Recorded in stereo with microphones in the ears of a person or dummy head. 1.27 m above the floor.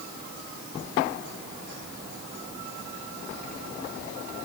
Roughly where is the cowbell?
No cowbell in this recording.